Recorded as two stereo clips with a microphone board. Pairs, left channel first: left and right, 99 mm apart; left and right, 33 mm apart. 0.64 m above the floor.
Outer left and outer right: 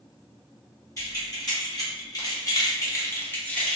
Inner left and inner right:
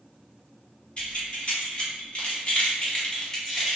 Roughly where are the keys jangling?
Left.